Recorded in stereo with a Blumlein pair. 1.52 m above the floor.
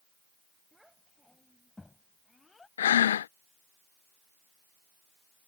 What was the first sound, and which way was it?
A child speaking, straight ahead.